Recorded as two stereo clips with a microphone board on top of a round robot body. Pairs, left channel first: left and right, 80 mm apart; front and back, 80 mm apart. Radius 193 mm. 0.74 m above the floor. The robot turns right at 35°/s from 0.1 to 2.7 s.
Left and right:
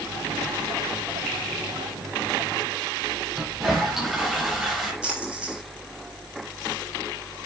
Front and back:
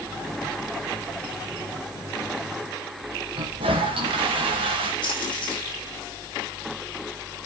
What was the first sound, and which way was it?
A toilet flushing, 175° right.